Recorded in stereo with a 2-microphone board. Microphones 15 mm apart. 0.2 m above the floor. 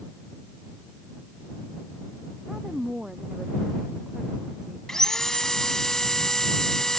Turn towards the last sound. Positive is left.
turn(degrees=35)  # may be behind; listen again after turning